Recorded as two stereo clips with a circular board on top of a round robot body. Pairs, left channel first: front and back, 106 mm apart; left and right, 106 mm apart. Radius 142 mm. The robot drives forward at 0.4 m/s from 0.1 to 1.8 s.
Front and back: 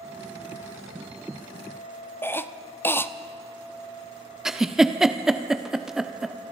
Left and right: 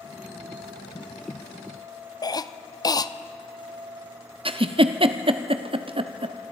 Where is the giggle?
95° right, 1.1 m.